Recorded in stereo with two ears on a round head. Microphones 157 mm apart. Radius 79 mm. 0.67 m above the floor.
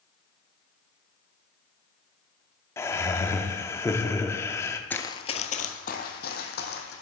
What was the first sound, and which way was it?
Laughter, 15° left (ahead or behind).